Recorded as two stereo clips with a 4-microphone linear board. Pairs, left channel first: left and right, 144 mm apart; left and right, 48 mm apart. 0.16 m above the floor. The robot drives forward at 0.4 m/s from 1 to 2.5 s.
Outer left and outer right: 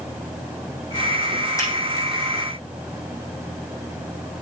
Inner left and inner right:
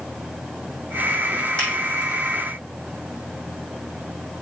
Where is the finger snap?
20° left (ahead or behind), 5.5 m.